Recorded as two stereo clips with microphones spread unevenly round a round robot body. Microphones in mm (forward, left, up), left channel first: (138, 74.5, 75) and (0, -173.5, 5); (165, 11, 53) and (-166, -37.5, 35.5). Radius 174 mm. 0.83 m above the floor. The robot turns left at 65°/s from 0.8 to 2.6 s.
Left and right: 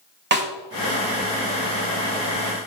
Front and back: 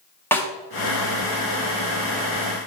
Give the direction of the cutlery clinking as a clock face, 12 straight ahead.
No cutlery clinking in this recording.